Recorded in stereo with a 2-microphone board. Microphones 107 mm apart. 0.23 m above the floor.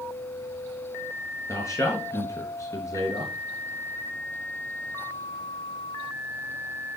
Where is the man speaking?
30° left (ahead or behind), 3.5 m.